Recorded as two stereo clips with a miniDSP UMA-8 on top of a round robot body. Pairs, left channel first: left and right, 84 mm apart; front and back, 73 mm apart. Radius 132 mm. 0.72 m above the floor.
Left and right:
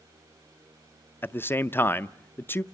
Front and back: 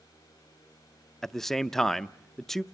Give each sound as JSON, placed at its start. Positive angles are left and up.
{"t": 1.2, "sound": "a man speaking", "azimuth_deg": 80, "distance_m": 0.6}